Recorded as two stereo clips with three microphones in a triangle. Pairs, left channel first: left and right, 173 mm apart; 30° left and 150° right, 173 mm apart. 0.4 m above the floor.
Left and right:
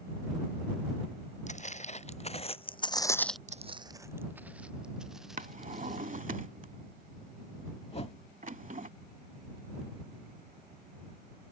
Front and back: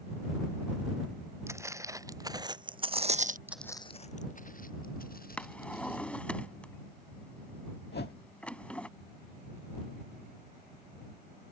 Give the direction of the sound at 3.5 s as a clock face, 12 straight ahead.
3 o'clock.